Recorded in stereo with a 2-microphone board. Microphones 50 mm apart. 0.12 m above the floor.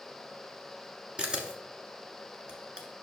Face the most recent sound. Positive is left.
turn(degrees=-20)  # may be behind; listen again after turning